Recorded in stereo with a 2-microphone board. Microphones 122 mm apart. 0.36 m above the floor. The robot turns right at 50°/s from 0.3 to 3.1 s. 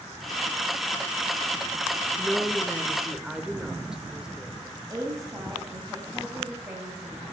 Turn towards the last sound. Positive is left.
turn(degrees=-30)  # may be behind; listen again after turning